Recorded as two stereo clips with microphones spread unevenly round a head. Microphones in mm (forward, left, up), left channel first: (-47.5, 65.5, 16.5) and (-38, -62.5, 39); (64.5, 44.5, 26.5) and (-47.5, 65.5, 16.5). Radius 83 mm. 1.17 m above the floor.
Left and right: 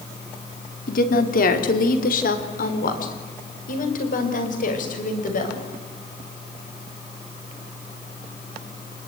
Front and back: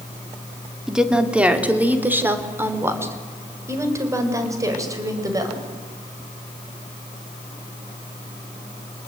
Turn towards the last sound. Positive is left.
turn(degrees=110)